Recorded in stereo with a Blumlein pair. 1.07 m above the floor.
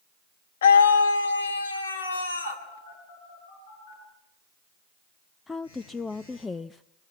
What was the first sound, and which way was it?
A scream, 60° left.